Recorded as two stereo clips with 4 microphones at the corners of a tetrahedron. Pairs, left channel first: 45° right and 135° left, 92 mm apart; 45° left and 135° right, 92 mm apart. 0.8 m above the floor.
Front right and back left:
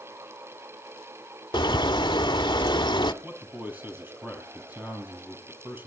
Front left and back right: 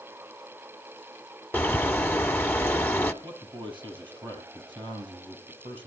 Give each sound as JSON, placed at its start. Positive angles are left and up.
{"t": 1.5, "sound": "a bird", "azimuth_deg": -25, "distance_m": 1.1}
{"t": 3.2, "sound": "a man speaking", "azimuth_deg": -160, "distance_m": 5.5}